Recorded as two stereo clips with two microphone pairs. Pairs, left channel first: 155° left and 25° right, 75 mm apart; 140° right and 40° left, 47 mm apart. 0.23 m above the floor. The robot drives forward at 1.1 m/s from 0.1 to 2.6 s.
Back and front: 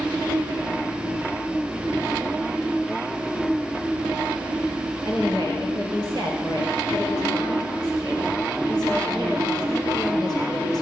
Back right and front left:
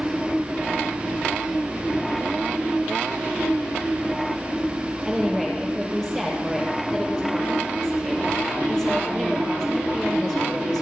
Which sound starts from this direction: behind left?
A woman speaking, at 5.0 s.